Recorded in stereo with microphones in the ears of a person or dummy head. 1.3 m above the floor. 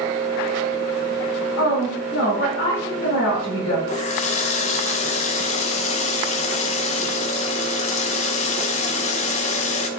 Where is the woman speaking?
65° left (ahead or behind), 3 m.